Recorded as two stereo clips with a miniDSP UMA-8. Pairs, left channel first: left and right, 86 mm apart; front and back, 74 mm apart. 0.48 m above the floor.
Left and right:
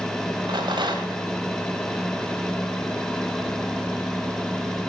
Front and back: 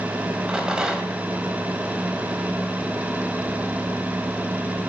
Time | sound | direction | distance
0.5 | a rattle | 100° right | 2.0 m